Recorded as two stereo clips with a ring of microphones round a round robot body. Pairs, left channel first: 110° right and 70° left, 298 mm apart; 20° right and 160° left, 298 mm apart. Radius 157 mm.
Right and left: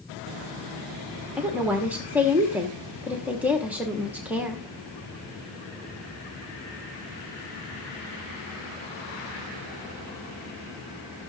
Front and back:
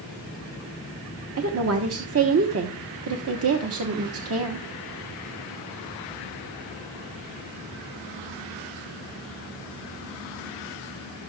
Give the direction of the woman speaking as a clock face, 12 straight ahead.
7 o'clock.